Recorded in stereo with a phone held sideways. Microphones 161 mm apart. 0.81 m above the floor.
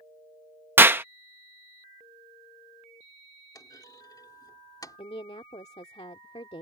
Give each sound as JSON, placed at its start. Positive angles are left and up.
{"t": 0.8, "sound": "a clap", "side_deg": -15}
{"t": 3.5, "sound": "a clunk", "side_deg": 25}
{"t": 5.0, "sound": "a woman speaking", "side_deg": 40}